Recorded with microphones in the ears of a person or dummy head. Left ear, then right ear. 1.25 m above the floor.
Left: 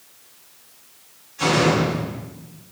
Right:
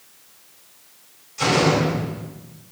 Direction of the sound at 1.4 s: 80° right.